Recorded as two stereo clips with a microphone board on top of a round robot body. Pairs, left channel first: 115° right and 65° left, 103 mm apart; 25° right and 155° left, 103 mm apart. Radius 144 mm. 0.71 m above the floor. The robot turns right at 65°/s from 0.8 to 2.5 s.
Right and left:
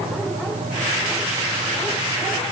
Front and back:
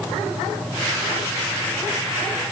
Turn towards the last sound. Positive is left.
No sound to turn to.